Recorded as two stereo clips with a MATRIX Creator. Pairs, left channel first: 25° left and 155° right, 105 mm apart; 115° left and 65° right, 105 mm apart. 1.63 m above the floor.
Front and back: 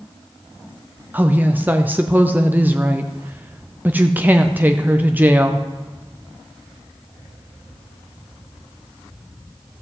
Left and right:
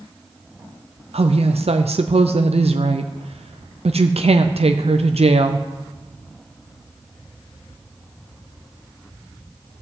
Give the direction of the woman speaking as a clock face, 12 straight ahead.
3 o'clock.